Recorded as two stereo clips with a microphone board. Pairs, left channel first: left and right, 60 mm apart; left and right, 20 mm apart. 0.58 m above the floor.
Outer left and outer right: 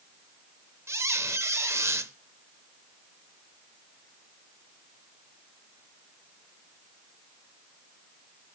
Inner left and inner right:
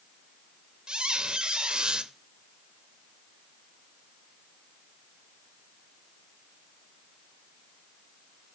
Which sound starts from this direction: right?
A squeak, at 0.9 s.